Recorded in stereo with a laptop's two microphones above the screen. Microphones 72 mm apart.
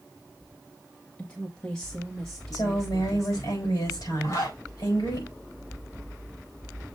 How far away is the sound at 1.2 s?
About 0.9 m.